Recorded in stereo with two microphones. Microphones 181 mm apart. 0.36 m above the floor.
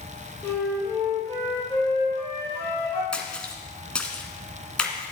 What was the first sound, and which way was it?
A flute, 15° left (ahead or behind).